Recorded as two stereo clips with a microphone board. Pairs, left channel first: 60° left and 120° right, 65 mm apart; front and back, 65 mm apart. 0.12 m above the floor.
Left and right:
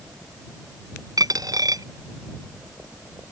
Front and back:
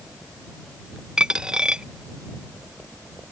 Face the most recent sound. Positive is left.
turn(degrees=-105)